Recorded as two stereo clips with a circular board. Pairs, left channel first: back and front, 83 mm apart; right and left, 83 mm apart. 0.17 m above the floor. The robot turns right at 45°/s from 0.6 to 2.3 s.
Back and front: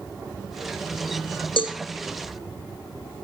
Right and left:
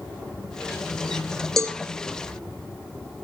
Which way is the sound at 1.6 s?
175° right.